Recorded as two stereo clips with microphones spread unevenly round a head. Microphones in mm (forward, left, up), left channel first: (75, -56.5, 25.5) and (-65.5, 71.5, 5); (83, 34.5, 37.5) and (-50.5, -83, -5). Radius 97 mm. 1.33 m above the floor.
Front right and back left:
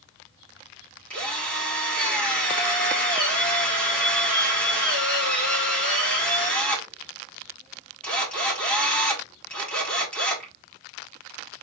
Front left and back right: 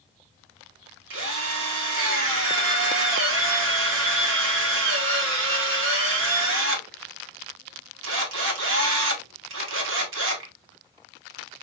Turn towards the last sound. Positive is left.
turn(degrees=-125)